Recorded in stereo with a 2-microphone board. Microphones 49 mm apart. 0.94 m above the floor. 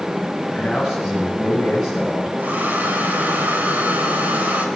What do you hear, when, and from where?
0.5 s a man speaking: centre (ahead or behind), 7.5 m
2.4 s a hair dryer: 35° right (ahead or behind), 4.5 m